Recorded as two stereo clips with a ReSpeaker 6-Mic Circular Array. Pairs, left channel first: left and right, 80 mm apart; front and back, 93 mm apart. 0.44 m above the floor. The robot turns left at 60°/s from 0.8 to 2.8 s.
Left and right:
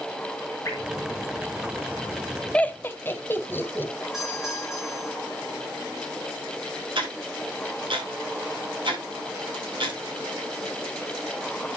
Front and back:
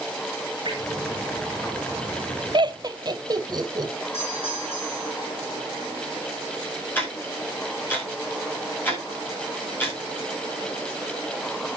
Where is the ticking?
70° right, 7 m.